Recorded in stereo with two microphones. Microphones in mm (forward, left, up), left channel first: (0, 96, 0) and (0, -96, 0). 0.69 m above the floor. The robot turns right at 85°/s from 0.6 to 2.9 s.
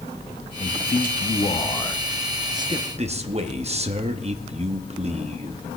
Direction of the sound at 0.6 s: 45° left.